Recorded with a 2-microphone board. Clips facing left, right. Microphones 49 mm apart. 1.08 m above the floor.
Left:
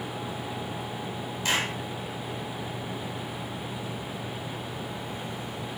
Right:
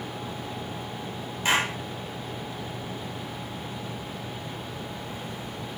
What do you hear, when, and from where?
1.4 s a clap: 30° right (ahead or behind), 5 m